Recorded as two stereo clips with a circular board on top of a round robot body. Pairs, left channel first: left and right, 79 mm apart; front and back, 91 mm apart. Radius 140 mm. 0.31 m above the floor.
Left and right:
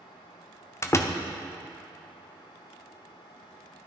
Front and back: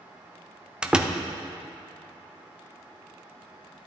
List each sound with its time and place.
0.8 s a door slam: 105° left, 1.0 m